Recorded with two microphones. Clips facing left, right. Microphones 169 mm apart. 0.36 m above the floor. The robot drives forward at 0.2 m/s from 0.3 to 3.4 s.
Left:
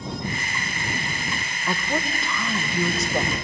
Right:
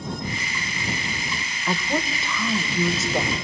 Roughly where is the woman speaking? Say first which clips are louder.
Right 1 dB; centre.